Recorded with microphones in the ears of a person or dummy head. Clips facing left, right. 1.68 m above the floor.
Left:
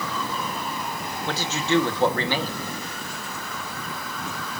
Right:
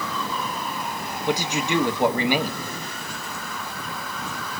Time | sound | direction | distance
1.3 | a man speaking | 10° right (ahead or behind) | 1.3 m